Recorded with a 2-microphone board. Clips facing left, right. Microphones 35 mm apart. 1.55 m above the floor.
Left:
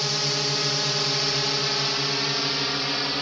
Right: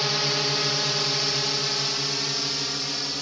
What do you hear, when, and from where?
0.0 s a drone: 15° right (ahead or behind); by 3.2 s 25° left (ahead or behind)